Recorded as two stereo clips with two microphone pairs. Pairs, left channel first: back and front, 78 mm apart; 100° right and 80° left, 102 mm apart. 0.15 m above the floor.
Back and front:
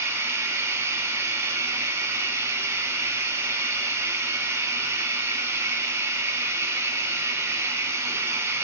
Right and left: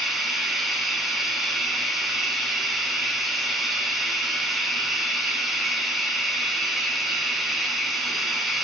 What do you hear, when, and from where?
0.0 s running water: 5° right, 1.4 m